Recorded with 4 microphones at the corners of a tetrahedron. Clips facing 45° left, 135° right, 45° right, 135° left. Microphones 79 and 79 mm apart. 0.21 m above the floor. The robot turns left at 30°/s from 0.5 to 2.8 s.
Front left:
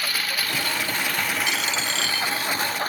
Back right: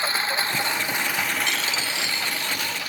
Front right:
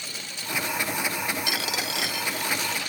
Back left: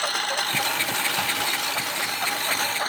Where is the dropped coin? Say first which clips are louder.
Front left 1 dB, back left 2 dB; 45° right; by 2.5 s 75° right.